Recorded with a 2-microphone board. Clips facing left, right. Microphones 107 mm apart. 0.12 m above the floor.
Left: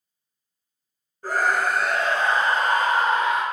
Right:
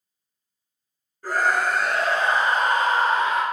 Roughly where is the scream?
Left.